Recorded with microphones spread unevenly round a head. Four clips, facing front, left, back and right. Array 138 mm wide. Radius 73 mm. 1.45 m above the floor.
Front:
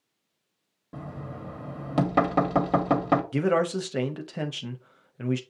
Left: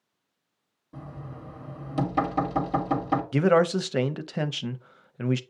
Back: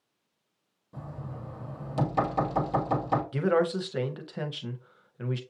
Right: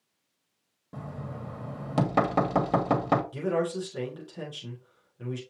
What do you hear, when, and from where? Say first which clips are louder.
0.9 s knocking: right 2 dB, front 3 dB; 35° right, 1.5 m
3.3 s a man speaking: left 7 dB, front 1 dB; 60° left, 0.6 m